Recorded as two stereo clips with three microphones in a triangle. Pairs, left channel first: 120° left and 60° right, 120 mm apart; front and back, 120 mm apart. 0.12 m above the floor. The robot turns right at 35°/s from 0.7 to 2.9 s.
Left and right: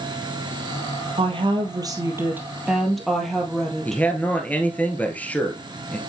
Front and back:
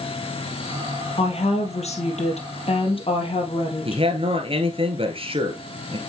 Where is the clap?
No clap in this recording.